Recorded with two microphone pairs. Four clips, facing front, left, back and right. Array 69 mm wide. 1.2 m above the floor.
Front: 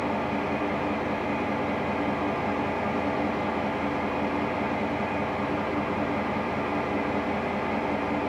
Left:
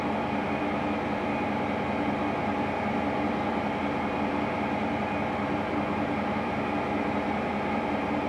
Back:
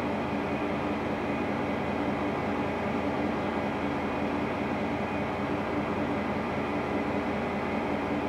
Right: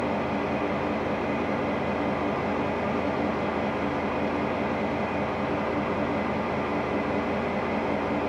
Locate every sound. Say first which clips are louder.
0.0 s an engine running: right 1 dB, front 3 dB; 50° right, 1.8 m